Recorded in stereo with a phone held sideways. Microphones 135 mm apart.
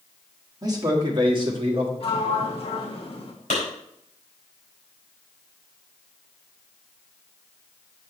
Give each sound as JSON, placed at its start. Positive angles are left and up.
{"t": 0.6, "sound": "a man speaking", "side_deg": -30, "distance_m": 1.8}
{"t": 2.0, "sound": "a sliding door", "side_deg": 45, "distance_m": 1.5}
{"t": 3.5, "sound": "a clap", "side_deg": 65, "distance_m": 4.5}